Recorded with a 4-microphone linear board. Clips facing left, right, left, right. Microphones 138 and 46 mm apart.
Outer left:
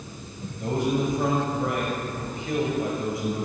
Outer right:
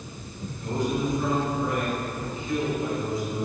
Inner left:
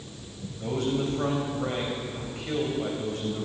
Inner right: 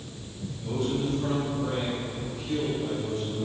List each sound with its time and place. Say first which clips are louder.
0.6 s a man speaking: outer left 2 dB, inner left 1 dB; 75° left (ahead or behind), 2.5 m